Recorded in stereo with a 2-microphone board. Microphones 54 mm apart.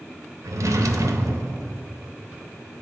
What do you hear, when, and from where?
0.4 s a drawer: 85° right, 0.5 m